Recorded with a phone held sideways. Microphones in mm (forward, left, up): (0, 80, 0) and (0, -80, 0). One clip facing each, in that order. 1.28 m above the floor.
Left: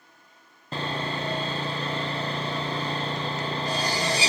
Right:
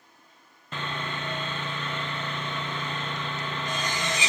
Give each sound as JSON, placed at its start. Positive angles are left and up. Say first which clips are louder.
{"t": 0.7, "sound": "sawing", "louder": "left 4 dB", "side_deg": 40, "distance_m": 0.6}